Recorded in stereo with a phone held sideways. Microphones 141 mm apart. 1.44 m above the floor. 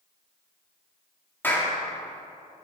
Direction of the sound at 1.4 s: 15° left (ahead or behind).